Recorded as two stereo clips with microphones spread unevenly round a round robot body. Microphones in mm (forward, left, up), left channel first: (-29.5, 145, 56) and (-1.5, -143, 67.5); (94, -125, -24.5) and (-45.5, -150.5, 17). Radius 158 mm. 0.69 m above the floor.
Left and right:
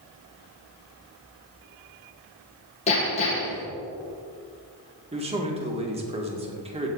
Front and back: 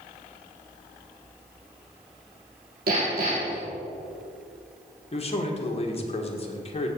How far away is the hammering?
About 4.5 m.